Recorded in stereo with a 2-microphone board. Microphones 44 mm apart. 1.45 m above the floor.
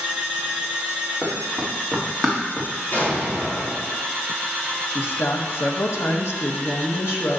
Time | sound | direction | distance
1.2 | running footsteps | centre (ahead or behind) | 4 m
2.9 | an explosion | 45° left (ahead or behind) | 4 m
4.9 | a woman speaking | 75° left (ahead or behind) | 1.5 m